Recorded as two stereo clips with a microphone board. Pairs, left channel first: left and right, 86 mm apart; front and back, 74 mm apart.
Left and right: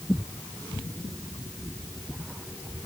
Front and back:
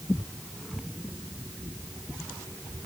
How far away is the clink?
No clink in this recording.